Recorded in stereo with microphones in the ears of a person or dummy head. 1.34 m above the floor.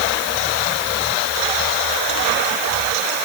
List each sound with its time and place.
Only background noise.